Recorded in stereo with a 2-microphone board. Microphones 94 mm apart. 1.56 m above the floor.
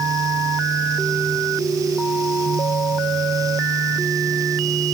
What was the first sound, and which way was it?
Only background noise.